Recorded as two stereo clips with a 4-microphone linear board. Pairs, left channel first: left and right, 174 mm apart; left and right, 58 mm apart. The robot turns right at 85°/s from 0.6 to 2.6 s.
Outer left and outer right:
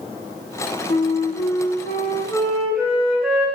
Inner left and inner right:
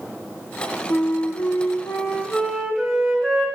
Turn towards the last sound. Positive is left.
turn(degrees=-175)